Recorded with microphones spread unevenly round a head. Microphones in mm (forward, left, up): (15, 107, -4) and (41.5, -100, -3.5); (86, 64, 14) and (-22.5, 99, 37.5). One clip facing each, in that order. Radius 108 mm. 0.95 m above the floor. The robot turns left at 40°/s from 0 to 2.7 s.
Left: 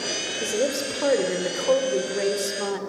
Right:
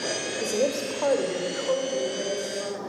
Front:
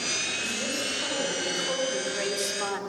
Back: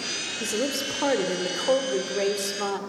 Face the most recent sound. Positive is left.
turn(degrees=95)